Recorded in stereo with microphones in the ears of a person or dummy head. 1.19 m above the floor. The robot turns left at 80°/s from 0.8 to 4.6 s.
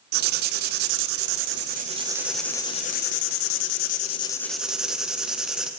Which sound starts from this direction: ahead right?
Writing, at 0.1 s.